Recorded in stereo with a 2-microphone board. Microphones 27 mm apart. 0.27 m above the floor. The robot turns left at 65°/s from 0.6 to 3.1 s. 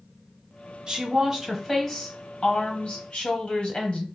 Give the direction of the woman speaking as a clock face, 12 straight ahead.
4 o'clock.